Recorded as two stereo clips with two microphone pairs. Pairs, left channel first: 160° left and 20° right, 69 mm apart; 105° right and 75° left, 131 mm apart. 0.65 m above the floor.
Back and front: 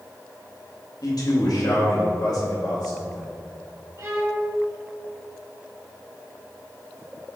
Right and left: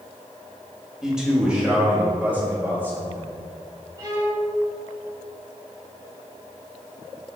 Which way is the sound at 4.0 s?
20° left.